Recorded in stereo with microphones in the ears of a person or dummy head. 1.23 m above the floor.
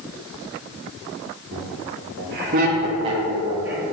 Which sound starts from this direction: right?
Laughter, at 1.5 s.